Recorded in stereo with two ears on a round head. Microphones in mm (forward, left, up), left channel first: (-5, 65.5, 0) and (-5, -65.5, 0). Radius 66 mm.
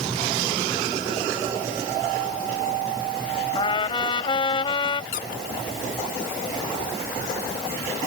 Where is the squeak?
70° left (ahead or behind).